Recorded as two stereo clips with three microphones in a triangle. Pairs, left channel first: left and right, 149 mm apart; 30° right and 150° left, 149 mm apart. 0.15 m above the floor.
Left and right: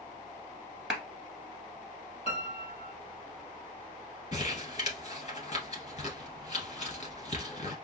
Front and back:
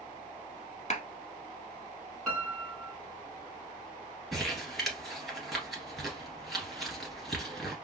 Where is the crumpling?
60° left, 1.6 m.